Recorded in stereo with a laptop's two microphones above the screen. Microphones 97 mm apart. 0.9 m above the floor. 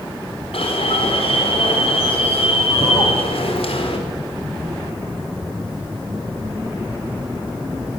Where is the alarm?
75° left (ahead or behind), 4 m.